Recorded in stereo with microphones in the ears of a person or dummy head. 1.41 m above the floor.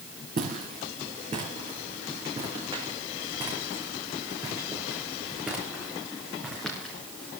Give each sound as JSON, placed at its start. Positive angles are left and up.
{"t": 0.4, "sound": "footsteps", "side_deg": -35, "distance_m": 5.0}